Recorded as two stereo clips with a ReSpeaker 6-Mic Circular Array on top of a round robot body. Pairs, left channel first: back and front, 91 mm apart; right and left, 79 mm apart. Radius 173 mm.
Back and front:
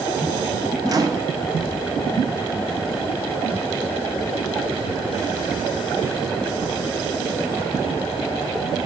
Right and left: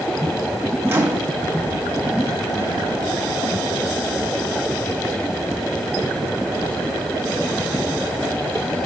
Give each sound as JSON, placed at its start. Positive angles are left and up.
{"t": 0.9, "sound": "a microwave", "azimuth_deg": 35, "distance_m": 1.1}